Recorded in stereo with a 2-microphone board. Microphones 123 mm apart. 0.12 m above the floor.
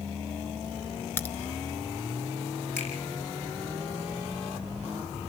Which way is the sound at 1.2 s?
15° left (ahead or behind).